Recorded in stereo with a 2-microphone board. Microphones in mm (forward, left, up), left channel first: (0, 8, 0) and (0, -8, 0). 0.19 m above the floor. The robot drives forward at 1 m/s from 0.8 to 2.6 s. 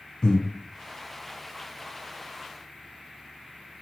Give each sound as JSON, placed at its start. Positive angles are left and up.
{"t": 0.2, "sound": "breathing", "side_deg": 55, "distance_m": 0.7}